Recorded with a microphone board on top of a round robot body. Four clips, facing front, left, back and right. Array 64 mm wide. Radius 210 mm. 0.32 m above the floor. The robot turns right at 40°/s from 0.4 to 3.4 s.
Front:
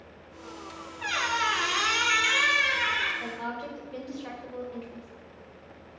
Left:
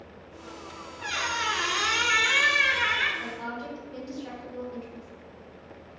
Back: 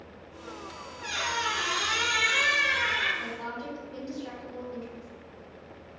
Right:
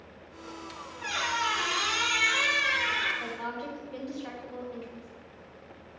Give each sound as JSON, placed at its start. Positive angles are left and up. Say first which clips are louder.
{"t": 1.0, "sound": "a squeak", "louder": "left 1 dB, front 3 dB", "azimuth_deg": 5, "distance_m": 0.7}
{"t": 3.2, "sound": "a woman speaking", "louder": "even, front 1 dB", "azimuth_deg": -45, "distance_m": 1.1}